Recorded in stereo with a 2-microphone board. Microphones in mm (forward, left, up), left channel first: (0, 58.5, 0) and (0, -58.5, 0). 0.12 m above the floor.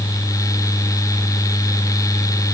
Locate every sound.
Only background noise.